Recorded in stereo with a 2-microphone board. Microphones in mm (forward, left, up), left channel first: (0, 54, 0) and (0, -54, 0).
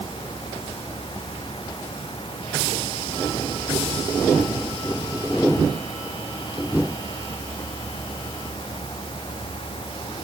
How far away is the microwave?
I don't hear a microwave.